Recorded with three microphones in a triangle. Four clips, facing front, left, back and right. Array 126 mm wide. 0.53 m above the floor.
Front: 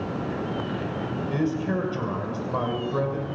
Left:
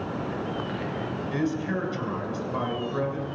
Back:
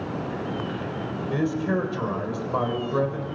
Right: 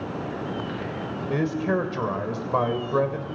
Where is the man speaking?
95° right, 2.5 m.